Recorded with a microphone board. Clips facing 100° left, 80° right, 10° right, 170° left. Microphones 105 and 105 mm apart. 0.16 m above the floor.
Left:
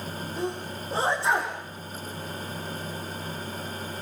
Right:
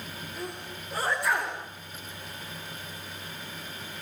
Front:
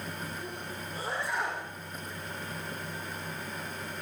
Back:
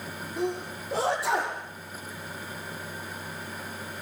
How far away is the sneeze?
About 5.5 m.